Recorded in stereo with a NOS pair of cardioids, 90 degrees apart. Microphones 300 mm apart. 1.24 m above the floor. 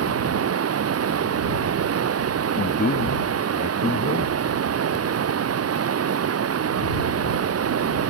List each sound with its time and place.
0.0 s running water: 50° right
2.6 s a man speaking: 25° left